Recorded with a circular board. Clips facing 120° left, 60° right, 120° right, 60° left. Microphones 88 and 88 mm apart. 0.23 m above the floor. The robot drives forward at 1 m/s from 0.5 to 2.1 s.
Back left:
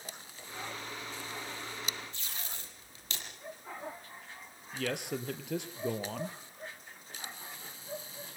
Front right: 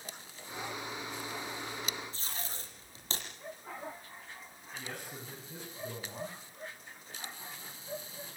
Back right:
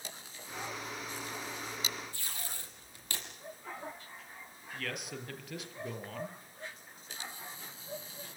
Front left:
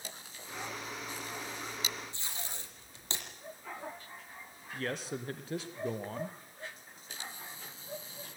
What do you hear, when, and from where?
2.1 s tape being pulled: 5° right, 7 m
4.7 s a man speaking: 120° left, 4 m